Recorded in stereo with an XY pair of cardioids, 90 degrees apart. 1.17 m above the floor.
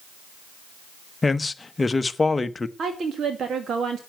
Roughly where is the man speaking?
Ahead left.